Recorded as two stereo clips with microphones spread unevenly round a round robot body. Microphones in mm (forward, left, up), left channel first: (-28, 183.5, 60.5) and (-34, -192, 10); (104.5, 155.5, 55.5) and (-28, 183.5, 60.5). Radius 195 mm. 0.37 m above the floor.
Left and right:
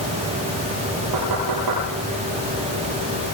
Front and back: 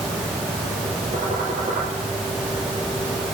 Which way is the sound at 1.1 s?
125° right.